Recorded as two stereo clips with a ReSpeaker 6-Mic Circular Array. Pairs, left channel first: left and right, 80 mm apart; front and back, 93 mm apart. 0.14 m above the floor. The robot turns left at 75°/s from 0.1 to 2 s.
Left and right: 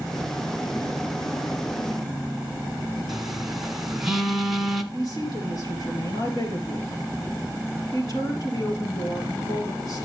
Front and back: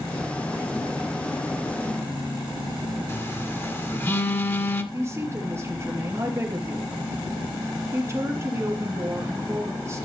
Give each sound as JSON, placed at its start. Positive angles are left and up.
{"t": 3.1, "sound": "a phone buzzing", "azimuth_deg": -5, "distance_m": 1.4}
{"t": 4.9, "sound": "a woman speaking", "azimuth_deg": 120, "distance_m": 3.5}